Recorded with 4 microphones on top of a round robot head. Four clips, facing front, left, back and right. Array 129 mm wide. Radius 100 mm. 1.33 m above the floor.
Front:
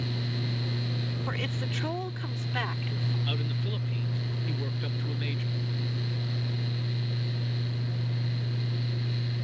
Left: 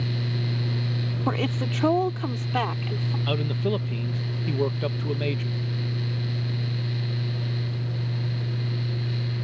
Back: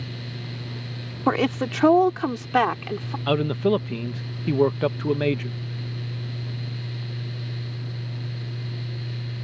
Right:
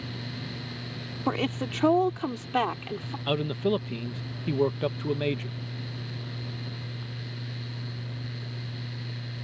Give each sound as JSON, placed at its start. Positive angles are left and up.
{"t": 1.3, "sound": "a woman speaking", "azimuth_deg": 180}
{"t": 3.3, "sound": "a man speaking", "azimuth_deg": -175}